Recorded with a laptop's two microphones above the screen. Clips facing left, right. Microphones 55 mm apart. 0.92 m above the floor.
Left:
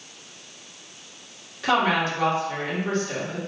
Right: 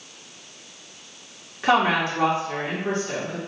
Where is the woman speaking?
25° right (ahead or behind), 2 m.